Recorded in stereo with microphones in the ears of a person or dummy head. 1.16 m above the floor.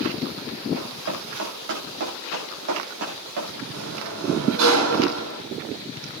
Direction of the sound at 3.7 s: 80° right.